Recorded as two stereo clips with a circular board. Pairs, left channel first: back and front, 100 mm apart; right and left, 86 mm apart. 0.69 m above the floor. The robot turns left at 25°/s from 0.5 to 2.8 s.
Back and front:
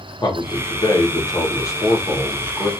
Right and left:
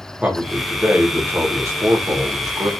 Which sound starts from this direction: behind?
A man speaking, at 0.2 s.